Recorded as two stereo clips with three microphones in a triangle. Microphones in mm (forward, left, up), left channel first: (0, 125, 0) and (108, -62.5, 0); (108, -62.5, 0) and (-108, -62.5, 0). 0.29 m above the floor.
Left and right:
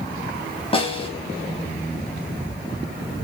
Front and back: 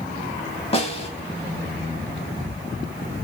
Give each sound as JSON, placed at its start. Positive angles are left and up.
{"t": 0.7, "sound": "a snare drum", "azimuth_deg": 60, "distance_m": 0.9}